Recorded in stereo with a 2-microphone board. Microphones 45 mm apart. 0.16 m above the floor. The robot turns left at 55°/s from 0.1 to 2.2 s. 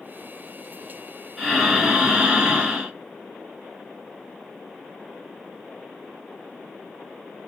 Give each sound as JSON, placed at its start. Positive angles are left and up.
{"t": 1.4, "sound": "breathing", "azimuth_deg": 10, "distance_m": 1.5}